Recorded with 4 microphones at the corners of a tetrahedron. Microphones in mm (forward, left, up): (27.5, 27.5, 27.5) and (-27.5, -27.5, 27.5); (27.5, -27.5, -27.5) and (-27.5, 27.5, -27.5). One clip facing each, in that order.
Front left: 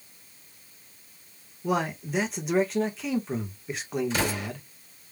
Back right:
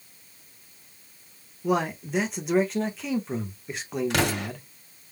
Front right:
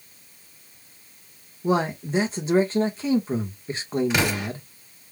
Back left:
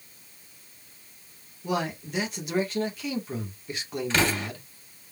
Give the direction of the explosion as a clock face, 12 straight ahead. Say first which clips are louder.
Back right 3 dB, front right 1 dB; 4 o'clock.